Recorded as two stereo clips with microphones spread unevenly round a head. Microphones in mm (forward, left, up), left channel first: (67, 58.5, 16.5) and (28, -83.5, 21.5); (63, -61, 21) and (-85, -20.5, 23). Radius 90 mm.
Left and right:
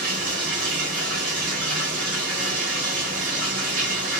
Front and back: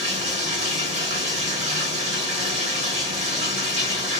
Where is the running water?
150° right, 1.7 m.